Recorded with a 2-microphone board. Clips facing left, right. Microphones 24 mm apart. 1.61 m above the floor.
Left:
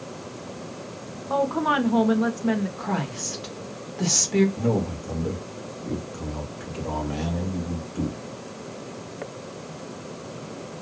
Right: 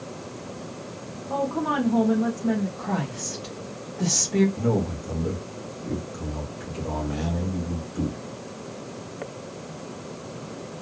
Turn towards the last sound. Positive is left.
turn(degrees=10)  # may be behind; listen again after turning